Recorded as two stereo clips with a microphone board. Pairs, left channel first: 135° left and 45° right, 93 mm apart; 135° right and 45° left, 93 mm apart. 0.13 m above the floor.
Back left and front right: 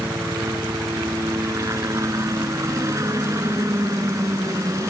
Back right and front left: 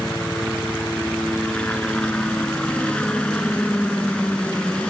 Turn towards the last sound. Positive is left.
turn(degrees=-65)